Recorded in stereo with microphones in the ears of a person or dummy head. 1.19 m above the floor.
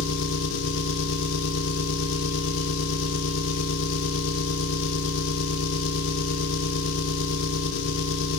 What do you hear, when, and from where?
0.0 s an engine running: 75° left (ahead or behind), 1.1 m